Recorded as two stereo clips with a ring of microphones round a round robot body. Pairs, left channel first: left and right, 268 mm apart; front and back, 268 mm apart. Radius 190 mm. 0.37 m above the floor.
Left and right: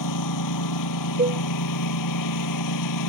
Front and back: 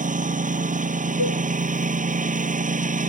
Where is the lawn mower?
120° left.